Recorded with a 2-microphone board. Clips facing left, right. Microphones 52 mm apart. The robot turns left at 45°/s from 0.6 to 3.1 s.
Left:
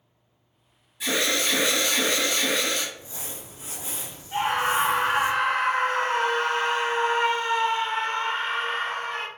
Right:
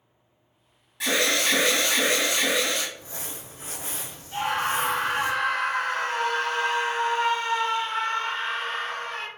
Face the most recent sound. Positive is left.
turn(degrees=30)  # may be behind; listen again after turning